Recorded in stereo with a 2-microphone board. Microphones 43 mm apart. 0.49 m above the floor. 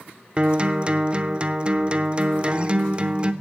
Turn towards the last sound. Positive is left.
turn(degrees=-25)  # may be behind; listen again after turning